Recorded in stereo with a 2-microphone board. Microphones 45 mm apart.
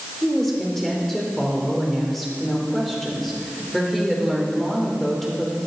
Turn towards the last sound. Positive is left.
turn(degrees=5)  # may be behind; listen again after turning